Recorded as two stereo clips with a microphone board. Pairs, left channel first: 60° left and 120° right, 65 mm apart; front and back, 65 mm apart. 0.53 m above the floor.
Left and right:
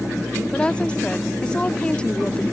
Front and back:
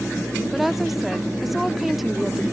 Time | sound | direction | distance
0.5 | a woman speaking | 100° left | ?